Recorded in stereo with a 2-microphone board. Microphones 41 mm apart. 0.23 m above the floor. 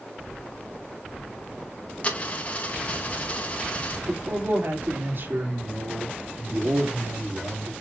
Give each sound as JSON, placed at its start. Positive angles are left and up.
{"t": 2.0, "sound": "a dropped coin", "side_deg": 35, "distance_m": 2.0}
{"t": 4.1, "sound": "a man speaking", "side_deg": -55, "distance_m": 4.0}